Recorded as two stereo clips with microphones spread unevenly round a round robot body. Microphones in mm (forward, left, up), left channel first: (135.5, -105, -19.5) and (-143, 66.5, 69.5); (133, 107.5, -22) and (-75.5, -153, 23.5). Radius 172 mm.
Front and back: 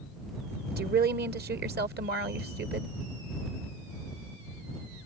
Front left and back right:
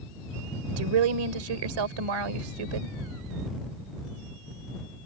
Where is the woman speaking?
145° right.